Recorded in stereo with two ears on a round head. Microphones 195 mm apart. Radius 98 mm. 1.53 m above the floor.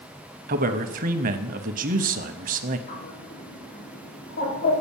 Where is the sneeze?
I don't hear a sneeze.